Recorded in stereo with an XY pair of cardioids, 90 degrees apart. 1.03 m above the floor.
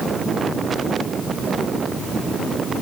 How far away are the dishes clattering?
No dishes clattering in this recording.